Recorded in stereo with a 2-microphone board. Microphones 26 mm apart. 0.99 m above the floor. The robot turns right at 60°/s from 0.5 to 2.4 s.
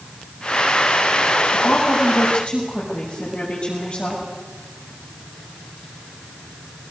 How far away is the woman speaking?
About 6.5 m.